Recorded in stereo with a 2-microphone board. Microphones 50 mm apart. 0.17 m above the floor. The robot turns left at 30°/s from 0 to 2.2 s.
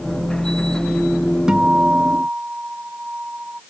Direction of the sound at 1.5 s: 15° right (ahead or behind).